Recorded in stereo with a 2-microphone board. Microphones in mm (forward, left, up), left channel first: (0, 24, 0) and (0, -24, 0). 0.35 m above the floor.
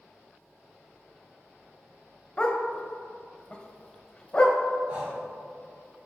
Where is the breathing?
20° right (ahead or behind), 2.5 m.